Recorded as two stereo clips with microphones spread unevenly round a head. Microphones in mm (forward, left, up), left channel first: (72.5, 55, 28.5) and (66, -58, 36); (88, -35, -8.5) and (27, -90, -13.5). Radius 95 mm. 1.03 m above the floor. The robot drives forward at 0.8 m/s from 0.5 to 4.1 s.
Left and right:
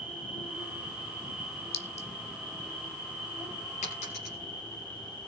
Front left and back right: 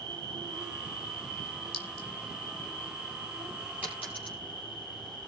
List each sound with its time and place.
0.0 s an insect: 175° right, 3.5 m
1.7 s a clink: 60° left, 2 m; by 2.1 s 65° left, 1.9 m
3.8 s a dropped coin: 140° left, 4.5 m